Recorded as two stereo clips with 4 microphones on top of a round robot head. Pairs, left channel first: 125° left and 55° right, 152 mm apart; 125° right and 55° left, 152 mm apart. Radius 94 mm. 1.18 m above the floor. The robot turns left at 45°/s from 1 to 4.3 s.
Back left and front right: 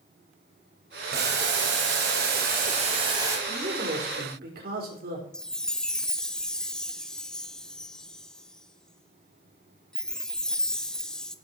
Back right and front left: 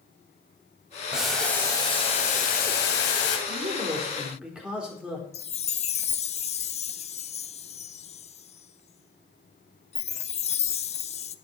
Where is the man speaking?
10° left, 4.5 m; by 5.2 s 30° right, 4.5 m.